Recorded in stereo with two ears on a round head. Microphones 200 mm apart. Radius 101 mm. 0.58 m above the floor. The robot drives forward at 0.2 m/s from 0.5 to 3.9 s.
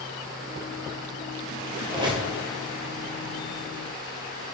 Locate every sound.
1.9 s a squeak: 20° right (ahead or behind), 0.9 m